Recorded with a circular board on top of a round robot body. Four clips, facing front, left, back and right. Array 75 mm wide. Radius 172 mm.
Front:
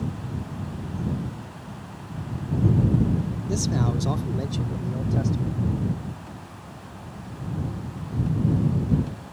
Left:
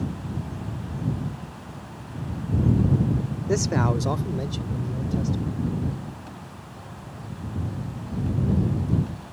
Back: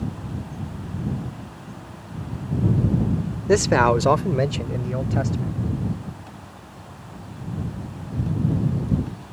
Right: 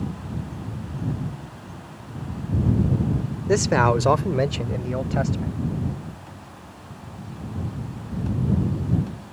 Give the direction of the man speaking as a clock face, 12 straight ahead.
5 o'clock.